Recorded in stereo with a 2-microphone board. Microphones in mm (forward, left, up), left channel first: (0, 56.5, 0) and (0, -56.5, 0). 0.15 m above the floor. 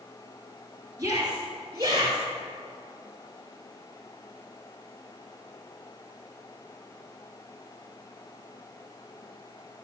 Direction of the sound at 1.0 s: 30° right (ahead or behind).